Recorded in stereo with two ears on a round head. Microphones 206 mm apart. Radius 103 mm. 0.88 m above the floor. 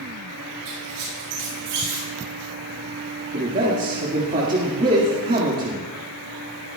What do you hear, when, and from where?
0.7 s a squeak: 75° right (ahead or behind), 6.5 m
3.3 s a man speaking: 35° right (ahead or behind), 1.7 m